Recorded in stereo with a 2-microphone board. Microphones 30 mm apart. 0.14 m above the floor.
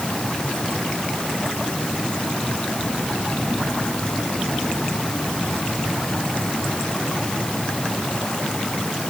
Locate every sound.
Only background noise.